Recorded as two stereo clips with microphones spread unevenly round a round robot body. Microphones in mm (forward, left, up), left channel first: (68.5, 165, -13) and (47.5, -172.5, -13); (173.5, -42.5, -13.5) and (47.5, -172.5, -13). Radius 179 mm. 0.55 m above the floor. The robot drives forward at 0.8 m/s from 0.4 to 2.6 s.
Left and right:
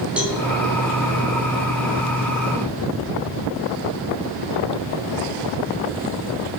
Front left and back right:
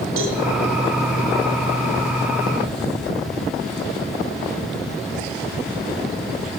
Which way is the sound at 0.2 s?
Straight behind.